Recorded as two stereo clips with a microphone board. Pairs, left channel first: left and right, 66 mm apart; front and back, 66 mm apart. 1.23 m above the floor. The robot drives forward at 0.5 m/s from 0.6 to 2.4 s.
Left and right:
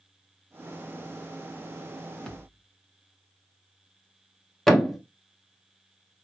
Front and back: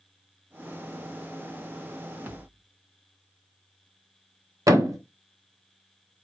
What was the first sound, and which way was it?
A thud, 160° left.